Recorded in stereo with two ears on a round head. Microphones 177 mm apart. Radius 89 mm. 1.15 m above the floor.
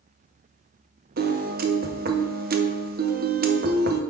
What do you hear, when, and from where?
1.2 s a piano: 50° right (ahead or behind), 0.8 m